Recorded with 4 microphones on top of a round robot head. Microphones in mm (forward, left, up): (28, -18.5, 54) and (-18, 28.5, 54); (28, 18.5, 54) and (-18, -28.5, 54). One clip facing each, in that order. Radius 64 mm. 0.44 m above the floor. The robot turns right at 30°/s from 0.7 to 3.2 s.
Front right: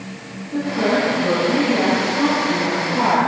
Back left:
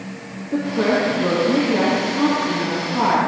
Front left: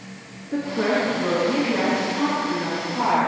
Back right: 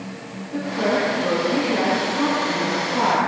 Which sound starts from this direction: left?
A woman speaking, at 0.5 s.